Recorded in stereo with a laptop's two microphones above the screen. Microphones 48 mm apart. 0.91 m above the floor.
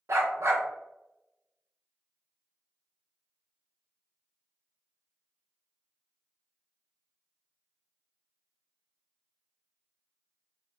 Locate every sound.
0.1 s a dog barking: 65° right (ahead or behind), 0.8 m